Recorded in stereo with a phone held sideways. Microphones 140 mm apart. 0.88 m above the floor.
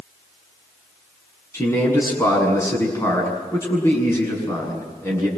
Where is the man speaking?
20° left (ahead or behind), 7 m.